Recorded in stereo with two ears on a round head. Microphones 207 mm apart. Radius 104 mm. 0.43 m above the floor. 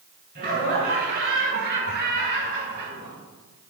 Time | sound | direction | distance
0.3 | laughter | 40° right (ahead or behind) | 3.5 m